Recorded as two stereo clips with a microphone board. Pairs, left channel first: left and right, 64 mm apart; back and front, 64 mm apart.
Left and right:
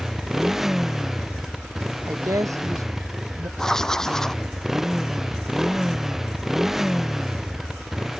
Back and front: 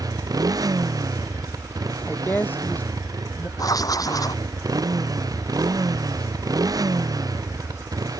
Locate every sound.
0.0 s a motorcycle: 5° right
2.1 s a woman speaking: 120° right
3.6 s writing: 170° left